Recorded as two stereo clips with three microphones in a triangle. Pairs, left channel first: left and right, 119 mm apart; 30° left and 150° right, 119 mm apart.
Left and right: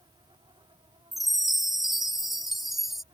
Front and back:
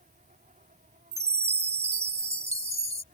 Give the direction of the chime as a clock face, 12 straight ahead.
6 o'clock.